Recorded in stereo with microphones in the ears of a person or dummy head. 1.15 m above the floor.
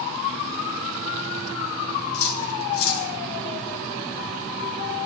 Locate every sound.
2.1 s cutlery clinking: 80° left, 3.5 m